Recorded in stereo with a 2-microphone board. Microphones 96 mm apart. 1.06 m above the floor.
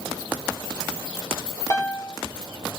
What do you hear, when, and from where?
1.7 s a piano: 30° left (ahead or behind), 2.5 m